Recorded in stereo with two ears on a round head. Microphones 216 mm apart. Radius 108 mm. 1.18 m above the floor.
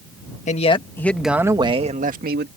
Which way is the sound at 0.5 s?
30° left (ahead or behind).